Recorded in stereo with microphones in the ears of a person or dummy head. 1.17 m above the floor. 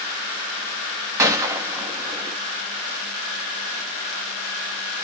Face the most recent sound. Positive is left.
turn(degrees=-20)  # may be behind; listen again after turning